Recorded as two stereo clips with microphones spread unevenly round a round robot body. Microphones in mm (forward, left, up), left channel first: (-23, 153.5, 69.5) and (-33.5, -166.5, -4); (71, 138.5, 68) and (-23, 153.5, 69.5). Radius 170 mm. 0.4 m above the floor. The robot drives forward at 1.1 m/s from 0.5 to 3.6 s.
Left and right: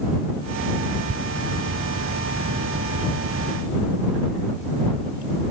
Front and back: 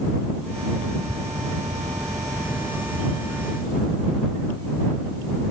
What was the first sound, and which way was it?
Only background noise.